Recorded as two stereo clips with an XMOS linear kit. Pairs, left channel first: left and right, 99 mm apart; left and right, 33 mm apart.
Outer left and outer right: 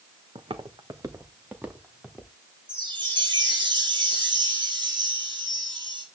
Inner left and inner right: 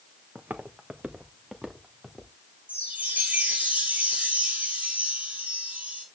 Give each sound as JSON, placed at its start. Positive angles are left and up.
{"t": 0.3, "sound": "footsteps", "side_deg": -65, "distance_m": 1.3}
{"t": 2.7, "sound": "a chime", "side_deg": -50, "distance_m": 3.5}